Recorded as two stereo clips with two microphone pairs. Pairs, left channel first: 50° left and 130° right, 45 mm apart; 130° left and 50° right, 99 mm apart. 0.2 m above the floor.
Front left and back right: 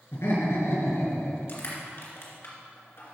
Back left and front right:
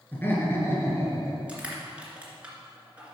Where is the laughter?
60° left, 2.5 m; by 1.4 s 75° left, 3.5 m.